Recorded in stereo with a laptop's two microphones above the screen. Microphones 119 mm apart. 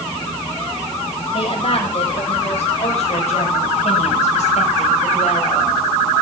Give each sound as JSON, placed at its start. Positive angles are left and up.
{"t": 1.3, "sound": "a woman speaking", "side_deg": 50, "distance_m": 6.5}